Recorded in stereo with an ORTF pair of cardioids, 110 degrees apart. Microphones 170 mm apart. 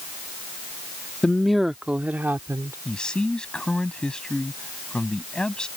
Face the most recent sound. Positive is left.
turn(degrees=5)